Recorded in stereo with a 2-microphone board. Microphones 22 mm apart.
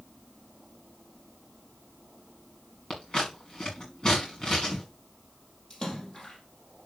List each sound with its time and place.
2.9 s scissors: 35° left (ahead or behind), 6 m
5.7 s a splash: 35° left (ahead or behind), 4.5 m